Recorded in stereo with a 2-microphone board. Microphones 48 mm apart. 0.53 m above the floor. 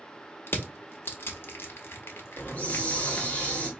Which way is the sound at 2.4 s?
30° left (ahead or behind).